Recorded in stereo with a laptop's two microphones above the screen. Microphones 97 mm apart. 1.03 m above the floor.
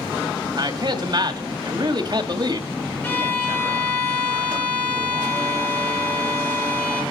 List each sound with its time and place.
0.6 s a man speaking: 50° right (ahead or behind), 2 m
3.0 s a violin: 20° left (ahead or behind), 3 m